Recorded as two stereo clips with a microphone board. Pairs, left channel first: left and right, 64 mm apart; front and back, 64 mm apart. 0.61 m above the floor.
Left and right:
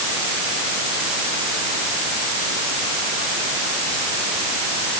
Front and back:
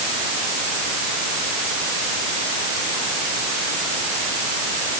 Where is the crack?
No crack in this recording.